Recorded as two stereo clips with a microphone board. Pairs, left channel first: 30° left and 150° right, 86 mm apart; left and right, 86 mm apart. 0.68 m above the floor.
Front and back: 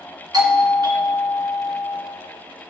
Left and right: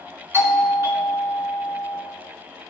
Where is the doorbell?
140° right, 2.5 m.